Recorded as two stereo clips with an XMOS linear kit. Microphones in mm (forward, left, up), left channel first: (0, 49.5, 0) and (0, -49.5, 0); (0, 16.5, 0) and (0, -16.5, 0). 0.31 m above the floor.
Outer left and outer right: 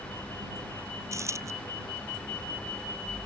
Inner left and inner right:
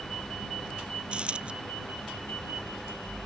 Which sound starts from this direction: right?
A dropped coin, at 1.1 s.